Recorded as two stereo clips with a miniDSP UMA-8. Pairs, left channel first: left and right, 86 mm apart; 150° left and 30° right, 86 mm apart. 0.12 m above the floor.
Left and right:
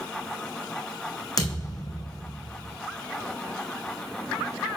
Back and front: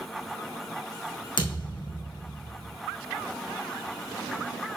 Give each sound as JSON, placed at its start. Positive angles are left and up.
{"t": 1.4, "sound": "a thud", "azimuth_deg": 135, "distance_m": 2.0}